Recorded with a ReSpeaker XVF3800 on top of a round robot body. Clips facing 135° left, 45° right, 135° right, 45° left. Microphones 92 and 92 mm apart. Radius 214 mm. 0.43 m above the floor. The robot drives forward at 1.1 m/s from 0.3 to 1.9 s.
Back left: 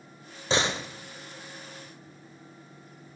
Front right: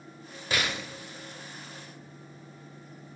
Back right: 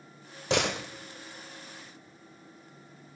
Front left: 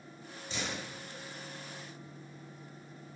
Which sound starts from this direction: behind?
A door slam, at 0.5 s.